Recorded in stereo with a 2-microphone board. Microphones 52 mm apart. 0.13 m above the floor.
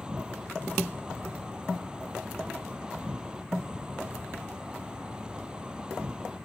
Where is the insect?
20° right (ahead or behind).